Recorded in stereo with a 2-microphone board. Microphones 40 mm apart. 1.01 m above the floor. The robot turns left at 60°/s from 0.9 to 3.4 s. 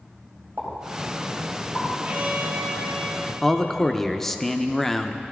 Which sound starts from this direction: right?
A pop, at 0.6 s.